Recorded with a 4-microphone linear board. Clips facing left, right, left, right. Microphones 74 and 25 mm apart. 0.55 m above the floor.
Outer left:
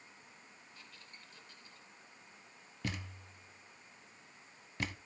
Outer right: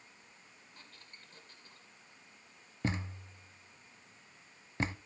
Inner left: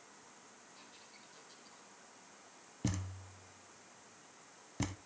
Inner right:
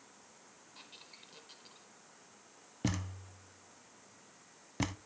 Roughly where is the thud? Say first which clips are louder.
Outer right 6 dB, inner right 3 dB; right.